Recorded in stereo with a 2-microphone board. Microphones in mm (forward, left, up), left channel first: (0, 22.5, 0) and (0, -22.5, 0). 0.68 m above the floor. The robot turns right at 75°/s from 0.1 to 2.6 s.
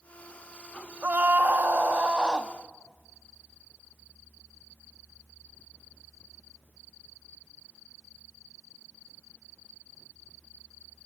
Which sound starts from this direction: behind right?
A scream, at 1.0 s.